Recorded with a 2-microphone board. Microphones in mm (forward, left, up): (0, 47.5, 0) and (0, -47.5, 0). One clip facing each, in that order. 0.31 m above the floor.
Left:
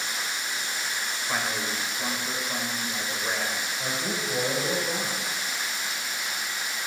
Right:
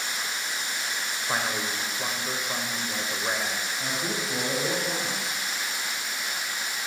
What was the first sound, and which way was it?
A man speaking, 20° right (ahead or behind).